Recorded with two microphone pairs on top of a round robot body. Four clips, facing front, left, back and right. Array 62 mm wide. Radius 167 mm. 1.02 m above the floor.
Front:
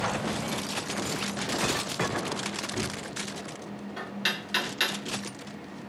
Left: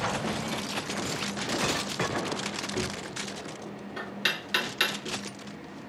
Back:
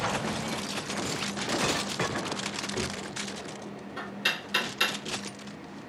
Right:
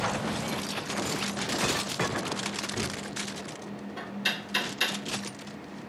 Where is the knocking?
70° left, 1.8 m.